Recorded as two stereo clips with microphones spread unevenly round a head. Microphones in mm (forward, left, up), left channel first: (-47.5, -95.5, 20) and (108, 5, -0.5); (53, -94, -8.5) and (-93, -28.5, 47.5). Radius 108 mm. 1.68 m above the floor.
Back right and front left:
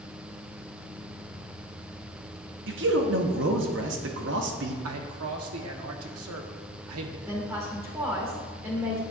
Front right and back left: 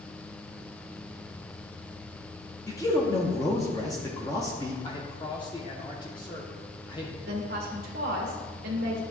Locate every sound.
2.7 s a man speaking: 60° left, 1.0 m
4.8 s a man speaking: 50° left, 1.1 m
7.3 s a woman speaking: 115° left, 1.5 m